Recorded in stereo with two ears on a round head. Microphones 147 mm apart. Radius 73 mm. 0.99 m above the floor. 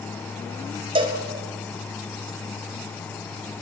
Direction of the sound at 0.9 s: 35° right (ahead or behind).